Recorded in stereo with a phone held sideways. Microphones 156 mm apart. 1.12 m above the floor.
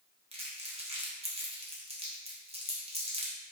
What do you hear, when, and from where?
0.3 s crumpling: 40° right (ahead or behind), 0.5 m